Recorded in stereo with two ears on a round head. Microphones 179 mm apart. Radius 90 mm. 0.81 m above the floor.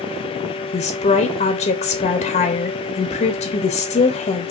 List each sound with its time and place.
0.7 s a woman speaking: 30° left (ahead or behind), 0.7 m